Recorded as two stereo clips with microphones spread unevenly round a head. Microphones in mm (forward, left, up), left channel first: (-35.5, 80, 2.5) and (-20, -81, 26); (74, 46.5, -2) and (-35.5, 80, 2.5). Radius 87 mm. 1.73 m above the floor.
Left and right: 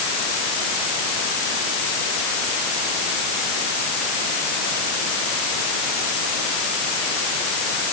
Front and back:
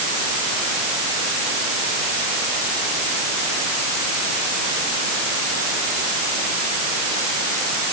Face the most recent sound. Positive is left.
No sound to turn to.